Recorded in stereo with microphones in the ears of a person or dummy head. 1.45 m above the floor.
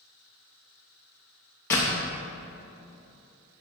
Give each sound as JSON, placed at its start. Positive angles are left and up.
{"t": 1.7, "sound": "a door slam", "side_deg": 15, "distance_m": 0.7}